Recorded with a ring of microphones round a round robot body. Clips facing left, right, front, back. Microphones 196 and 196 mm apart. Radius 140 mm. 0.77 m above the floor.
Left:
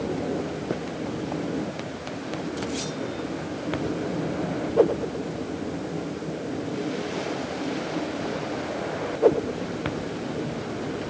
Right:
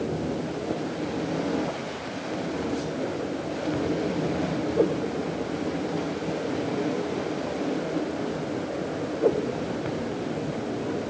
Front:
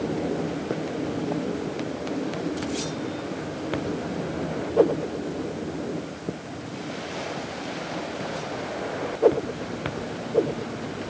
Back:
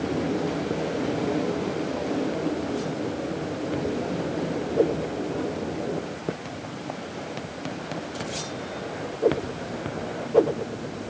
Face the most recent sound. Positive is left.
No sound to turn to.